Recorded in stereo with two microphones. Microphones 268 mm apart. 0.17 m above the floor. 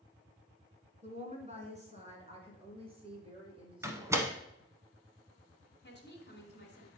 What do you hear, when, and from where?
1.0 s a woman speaking: 25° right (ahead or behind), 1.6 m; by 4.4 s 20° right (ahead or behind), 4 m
3.8 s a door slam: 10° right (ahead or behind), 0.9 m
5.8 s a woman speaking: 45° left (ahead or behind), 1.7 m